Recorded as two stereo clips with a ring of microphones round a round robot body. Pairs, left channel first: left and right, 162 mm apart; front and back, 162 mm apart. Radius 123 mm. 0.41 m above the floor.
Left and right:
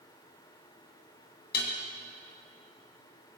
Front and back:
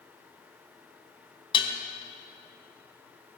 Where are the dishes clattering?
55° left, 2.5 m.